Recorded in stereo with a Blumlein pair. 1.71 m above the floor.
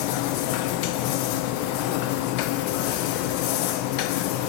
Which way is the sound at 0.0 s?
45° left.